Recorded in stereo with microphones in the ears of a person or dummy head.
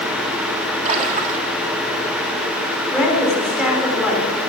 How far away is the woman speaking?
About 4 m.